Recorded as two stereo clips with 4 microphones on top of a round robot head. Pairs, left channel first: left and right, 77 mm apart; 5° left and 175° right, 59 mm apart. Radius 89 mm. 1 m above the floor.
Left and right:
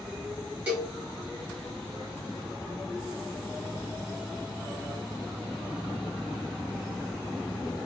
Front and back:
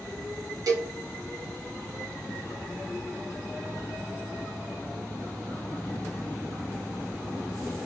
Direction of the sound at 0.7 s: 165° right.